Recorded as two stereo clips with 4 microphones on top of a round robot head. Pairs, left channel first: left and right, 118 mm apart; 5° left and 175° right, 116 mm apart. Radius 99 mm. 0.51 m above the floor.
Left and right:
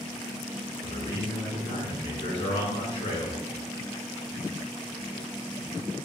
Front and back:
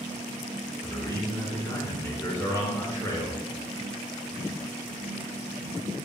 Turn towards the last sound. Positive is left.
turn(degrees=55)